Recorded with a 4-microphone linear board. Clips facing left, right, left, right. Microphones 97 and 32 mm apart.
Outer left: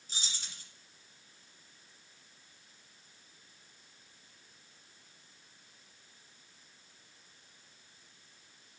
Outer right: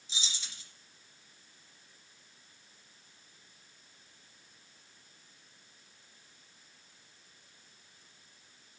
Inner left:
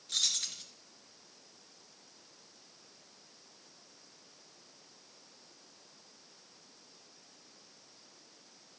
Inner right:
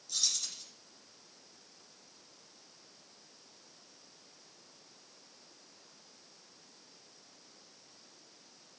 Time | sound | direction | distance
0.1 | keys jangling | 50° left (ahead or behind) | 2 m